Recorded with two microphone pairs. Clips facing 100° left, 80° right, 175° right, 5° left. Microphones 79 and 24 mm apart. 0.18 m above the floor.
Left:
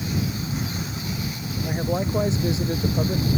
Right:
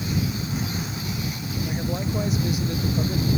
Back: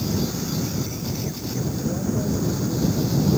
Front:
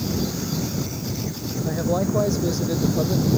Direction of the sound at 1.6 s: 40° left.